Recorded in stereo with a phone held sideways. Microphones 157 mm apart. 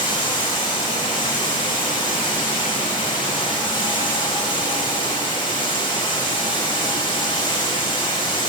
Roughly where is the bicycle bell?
I don't hear a bicycle bell.